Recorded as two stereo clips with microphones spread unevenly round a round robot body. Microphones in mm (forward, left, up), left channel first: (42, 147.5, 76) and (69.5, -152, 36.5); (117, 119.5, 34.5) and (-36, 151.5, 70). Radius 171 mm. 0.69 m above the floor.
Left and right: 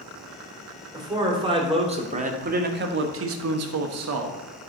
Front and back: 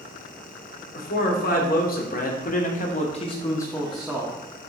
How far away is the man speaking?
About 2.5 m.